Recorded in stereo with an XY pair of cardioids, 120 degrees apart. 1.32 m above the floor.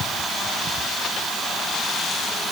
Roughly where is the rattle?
I don't hear a rattle.